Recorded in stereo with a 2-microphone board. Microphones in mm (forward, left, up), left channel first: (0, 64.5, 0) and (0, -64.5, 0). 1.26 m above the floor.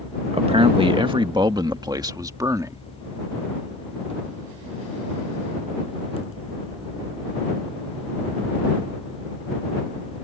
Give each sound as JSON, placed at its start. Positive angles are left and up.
{"t": 0.3, "sound": "a man speaking", "side_deg": -50}